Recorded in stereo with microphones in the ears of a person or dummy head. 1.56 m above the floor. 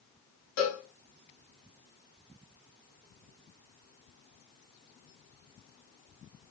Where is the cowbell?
70° left (ahead or behind), 2 m.